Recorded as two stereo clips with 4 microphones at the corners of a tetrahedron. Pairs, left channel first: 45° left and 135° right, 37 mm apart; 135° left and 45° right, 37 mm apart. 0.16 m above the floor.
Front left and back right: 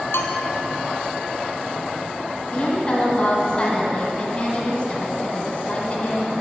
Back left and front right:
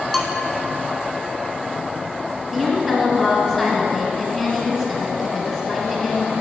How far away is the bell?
About 0.9 m.